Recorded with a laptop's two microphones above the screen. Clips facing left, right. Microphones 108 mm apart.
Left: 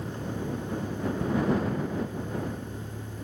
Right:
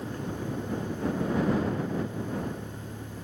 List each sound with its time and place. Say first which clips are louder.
0.0 s a vehicle: even; 25° left (ahead or behind)